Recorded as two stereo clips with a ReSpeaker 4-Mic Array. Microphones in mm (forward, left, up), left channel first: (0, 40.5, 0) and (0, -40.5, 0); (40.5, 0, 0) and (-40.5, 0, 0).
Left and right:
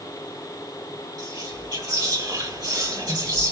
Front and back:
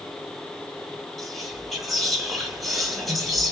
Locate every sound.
1.2 s whispering: 95° right, 1.7 m